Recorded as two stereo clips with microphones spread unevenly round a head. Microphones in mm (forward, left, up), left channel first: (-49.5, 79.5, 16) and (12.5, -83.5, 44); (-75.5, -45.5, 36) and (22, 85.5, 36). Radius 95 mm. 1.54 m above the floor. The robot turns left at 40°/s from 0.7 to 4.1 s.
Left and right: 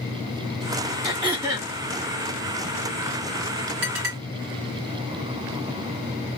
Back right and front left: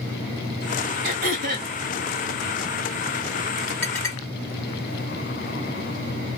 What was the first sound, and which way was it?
Throat clearing, 25° left.